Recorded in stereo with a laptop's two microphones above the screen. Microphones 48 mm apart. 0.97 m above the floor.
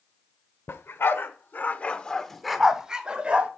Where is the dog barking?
60° left (ahead or behind), 1.0 m; by 3.5 s 30° right (ahead or behind), 1.1 m.